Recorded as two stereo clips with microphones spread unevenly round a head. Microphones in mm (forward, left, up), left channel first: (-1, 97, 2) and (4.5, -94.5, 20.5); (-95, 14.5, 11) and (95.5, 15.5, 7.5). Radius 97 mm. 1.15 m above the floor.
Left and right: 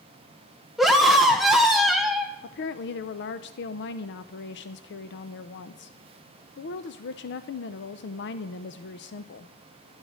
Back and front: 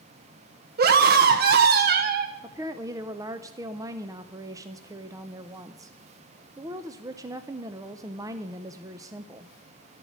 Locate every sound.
0.8 s a scream: 5° left, 0.8 m
2.4 s a woman speaking: 70° left, 0.6 m